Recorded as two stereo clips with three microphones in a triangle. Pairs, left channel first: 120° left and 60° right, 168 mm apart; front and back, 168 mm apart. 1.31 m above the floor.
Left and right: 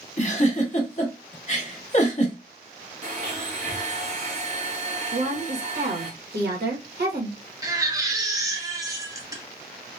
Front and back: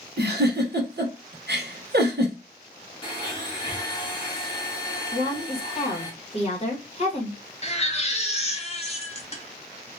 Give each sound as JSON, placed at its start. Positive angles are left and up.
{"t": 0.2, "sound": "a giggle", "azimuth_deg": 170, "distance_m": 0.9}
{"t": 3.0, "sound": "a blender", "azimuth_deg": -55, "distance_m": 1.1}
{"t": 5.1, "sound": "a woman speaking", "azimuth_deg": -50, "distance_m": 1.3}
{"t": 7.6, "sound": "a baby crying", "azimuth_deg": -5, "distance_m": 0.7}